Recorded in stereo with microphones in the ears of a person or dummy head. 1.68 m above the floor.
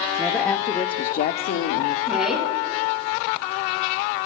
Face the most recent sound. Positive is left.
turn(degrees=-5)  # may be behind; listen again after turning